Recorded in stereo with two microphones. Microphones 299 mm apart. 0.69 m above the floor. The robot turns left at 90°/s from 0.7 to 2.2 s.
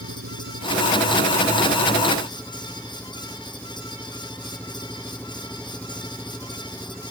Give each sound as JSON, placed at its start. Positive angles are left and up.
{"t": 0.0, "sound": "an engine running", "azimuth_deg": -50}